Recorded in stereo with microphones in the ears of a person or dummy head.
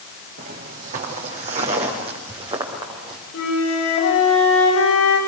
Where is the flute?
75° left (ahead or behind), 9 m.